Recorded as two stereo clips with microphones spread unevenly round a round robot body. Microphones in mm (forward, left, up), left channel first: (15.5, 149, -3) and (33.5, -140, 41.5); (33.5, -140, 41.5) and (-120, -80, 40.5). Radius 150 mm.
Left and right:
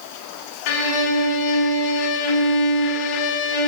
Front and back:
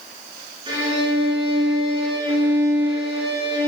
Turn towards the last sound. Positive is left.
turn(degrees=80)